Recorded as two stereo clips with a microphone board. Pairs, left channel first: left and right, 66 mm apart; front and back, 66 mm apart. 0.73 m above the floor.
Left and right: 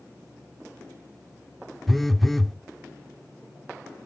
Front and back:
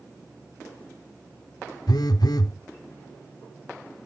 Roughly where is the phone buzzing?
Ahead.